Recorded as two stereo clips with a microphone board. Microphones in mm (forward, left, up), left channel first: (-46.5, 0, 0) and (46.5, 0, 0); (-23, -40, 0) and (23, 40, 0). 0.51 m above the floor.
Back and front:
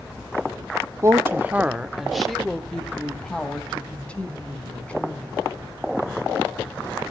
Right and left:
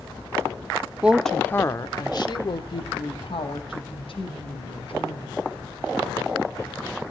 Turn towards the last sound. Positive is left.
turn(degrees=-105)